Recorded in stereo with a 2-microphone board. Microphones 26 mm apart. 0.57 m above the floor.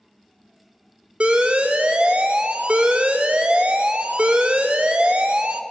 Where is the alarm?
55° right (ahead or behind), 0.8 m.